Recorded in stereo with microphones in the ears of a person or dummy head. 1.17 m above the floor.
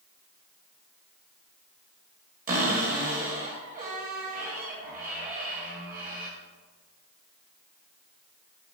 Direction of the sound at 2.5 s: 45° right (ahead or behind).